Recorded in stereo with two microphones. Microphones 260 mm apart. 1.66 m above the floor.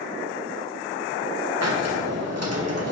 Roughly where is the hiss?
Right.